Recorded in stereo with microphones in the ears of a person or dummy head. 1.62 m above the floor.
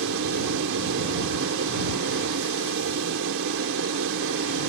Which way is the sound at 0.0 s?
80° right.